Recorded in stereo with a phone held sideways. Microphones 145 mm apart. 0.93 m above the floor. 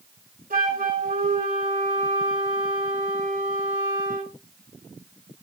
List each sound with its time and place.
0.5 s a flute: 80° right, 4 m